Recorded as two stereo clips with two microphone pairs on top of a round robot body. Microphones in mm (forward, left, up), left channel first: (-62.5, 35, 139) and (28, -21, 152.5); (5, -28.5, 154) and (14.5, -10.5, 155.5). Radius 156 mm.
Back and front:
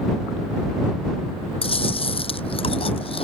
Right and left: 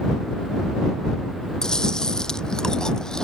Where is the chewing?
Straight behind.